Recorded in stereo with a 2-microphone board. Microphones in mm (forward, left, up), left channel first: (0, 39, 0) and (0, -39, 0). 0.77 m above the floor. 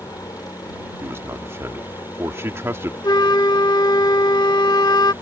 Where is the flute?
65° left (ahead or behind).